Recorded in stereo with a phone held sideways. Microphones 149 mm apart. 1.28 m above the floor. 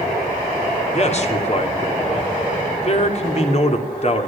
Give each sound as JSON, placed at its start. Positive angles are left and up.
{"t": 0.9, "sound": "a man speaking", "side_deg": 45, "distance_m": 3.5}